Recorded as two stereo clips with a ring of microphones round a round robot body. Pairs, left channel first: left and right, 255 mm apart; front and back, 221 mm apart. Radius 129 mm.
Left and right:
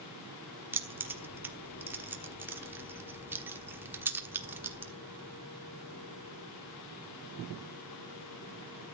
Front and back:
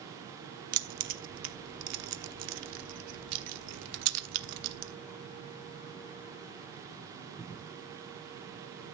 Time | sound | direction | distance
0.7 | keys jangling | 170° right | 1.2 m